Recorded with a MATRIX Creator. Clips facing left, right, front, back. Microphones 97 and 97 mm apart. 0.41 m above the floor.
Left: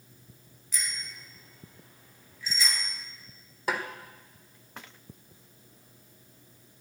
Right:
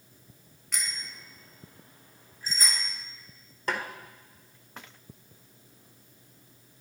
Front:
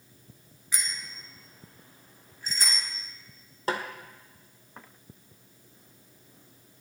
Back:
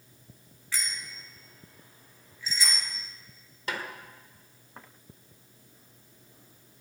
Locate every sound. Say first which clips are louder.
0.7 s a bicycle bell: even, even; 70° right, 3 m; by 2.9 s 45° right, 5 m
3.7 s a snare drum: left 1 dB, front 5 dB; 10° left, 1.5 m